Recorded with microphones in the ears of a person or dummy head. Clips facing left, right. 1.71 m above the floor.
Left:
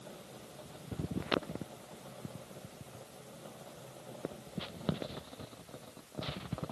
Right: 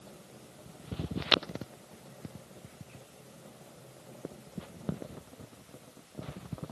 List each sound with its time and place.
Only background noise.